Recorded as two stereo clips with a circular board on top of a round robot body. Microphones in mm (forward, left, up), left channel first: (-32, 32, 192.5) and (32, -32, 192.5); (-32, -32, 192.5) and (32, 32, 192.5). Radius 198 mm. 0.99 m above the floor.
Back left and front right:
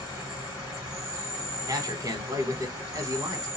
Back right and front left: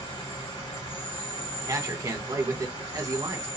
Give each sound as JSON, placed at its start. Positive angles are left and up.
{"t": 0.0, "sound": "an insect", "azimuth_deg": -120, "distance_m": 2.5}
{"t": 1.7, "sound": "a man speaking", "azimuth_deg": 0, "distance_m": 1.4}